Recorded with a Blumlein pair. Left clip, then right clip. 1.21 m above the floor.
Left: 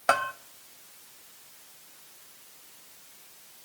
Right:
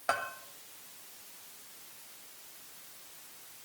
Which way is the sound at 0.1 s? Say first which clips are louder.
Left 8 dB; 65° left.